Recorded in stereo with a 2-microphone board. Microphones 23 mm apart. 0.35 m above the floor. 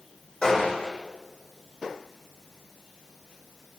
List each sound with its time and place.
0.4 s a gunshot: 25° left (ahead or behind), 9.5 m